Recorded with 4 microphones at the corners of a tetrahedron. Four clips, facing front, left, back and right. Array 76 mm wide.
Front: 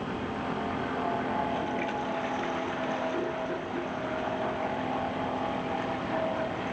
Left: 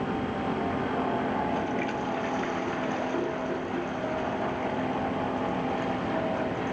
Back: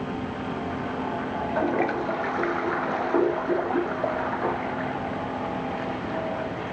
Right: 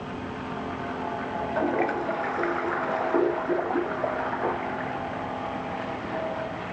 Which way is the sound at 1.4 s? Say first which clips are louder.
Right 3 dB, back 6 dB; 135° right.